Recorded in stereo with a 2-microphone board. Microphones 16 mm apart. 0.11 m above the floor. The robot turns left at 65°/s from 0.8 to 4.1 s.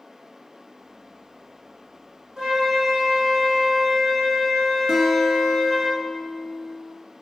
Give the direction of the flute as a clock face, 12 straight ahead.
4 o'clock.